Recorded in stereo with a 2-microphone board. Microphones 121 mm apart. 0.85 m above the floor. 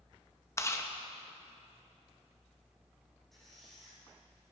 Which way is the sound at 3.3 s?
Centre (ahead or behind).